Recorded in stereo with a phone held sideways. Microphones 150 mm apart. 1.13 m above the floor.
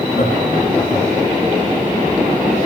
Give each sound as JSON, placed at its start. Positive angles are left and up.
{"t": 0.1, "sound": "laughter", "side_deg": 80, "distance_m": 6.5}